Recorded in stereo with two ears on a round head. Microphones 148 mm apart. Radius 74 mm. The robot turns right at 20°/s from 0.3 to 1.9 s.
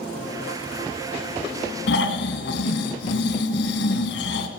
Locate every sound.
1.9 s snoring: 75° left (ahead or behind), 1.5 m